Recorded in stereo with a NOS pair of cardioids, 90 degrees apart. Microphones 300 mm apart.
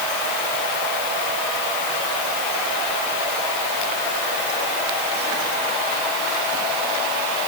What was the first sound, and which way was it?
Only background noise.